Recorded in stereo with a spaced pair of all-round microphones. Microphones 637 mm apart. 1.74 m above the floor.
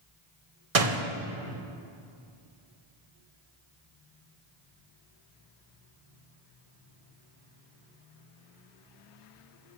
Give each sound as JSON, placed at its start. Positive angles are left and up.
{"t": 0.8, "sound": "a door slam", "side_deg": -60, "distance_m": 1.4}